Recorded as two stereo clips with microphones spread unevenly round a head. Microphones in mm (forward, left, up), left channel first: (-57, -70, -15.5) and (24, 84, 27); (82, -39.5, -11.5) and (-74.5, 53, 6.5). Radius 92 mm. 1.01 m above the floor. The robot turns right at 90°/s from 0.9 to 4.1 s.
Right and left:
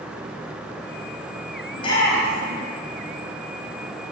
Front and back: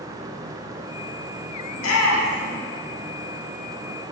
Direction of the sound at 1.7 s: 65° right.